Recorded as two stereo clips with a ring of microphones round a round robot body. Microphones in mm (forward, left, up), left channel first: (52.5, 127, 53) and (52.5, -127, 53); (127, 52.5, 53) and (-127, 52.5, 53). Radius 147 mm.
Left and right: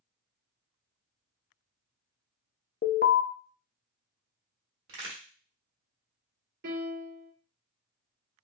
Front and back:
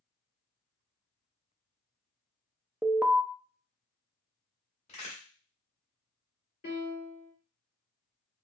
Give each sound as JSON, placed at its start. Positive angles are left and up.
{"t": 2.8, "sound": "an alarm", "azimuth_deg": 95, "distance_m": 0.7}
{"t": 4.9, "sound": "a crack", "azimuth_deg": -65, "distance_m": 1.5}
{"t": 6.6, "sound": "a piano", "azimuth_deg": -55, "distance_m": 2.0}